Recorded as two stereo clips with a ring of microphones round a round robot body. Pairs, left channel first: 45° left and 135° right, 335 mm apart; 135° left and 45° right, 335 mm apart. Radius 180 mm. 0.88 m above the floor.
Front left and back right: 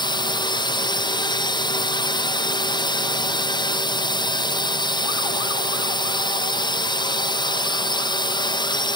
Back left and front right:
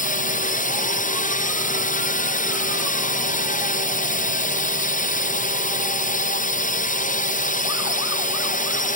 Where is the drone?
105° left.